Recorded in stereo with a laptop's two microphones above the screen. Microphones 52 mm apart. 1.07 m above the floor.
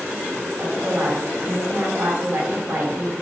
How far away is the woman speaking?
About 1.4 m.